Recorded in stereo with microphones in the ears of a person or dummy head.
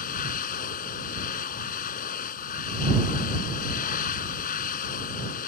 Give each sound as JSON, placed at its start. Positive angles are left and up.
{"t": 0.0, "sound": "a machine running", "side_deg": 50}